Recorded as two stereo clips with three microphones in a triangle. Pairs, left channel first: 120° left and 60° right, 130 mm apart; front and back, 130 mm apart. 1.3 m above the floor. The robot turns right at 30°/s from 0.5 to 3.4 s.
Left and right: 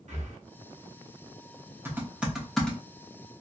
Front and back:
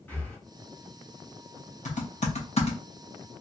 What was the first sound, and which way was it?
Breathing, 75° right.